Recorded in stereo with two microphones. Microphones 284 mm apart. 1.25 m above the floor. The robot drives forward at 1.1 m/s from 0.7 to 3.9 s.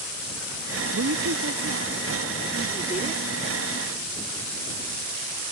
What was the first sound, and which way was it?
A woman speaking, 70° right (ahead or behind).